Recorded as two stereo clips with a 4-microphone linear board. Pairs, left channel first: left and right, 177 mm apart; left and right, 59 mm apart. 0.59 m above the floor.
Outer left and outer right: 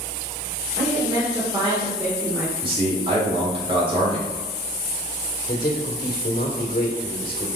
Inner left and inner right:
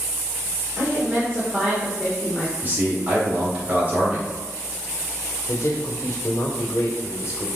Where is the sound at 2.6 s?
30° right (ahead or behind), 3 m.